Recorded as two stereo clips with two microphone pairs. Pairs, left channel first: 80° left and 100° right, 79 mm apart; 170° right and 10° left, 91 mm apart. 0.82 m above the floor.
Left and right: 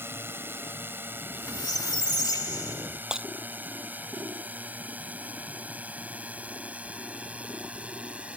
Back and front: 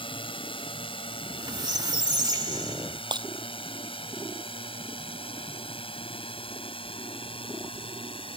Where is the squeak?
50° left.